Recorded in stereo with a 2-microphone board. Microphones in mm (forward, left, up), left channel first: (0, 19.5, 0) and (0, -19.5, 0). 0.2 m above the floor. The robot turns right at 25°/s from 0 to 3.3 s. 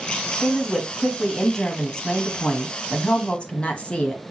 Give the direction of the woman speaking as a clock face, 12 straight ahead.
12 o'clock.